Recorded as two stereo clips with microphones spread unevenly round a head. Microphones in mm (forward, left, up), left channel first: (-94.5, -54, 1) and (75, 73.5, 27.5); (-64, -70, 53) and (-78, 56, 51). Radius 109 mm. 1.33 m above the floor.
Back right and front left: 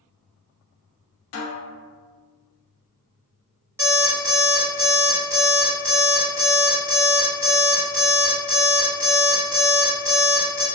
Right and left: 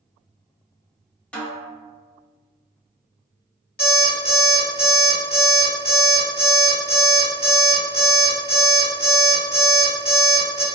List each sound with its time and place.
1.3 s a snare drum: 165° right, 0.9 m
3.8 s an alarm clock: 40° right, 1.6 m